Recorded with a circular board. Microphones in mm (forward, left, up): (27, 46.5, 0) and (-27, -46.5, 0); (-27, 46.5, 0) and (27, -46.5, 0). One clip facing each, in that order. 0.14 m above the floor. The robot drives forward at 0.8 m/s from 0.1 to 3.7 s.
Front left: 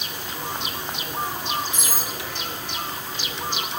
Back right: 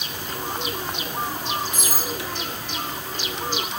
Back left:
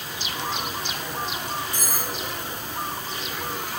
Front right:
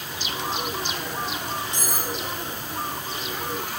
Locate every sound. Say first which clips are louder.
1.7 s cutlery clinking: back right 2 dB, front right 1 dB; 5° left, 3 m